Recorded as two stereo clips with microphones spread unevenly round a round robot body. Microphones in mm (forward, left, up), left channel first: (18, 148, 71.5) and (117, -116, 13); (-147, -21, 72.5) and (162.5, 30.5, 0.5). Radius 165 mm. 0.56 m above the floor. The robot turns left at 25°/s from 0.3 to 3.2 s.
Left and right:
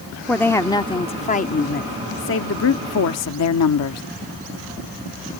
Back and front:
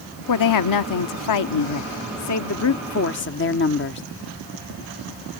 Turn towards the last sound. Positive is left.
turn(degrees=135)